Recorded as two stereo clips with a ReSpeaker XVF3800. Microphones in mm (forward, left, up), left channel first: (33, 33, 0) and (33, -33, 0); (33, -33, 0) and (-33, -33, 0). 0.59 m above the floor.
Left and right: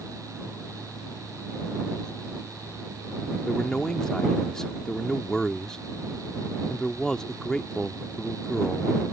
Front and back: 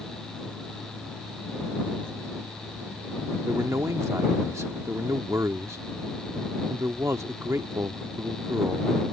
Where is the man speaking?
165° left.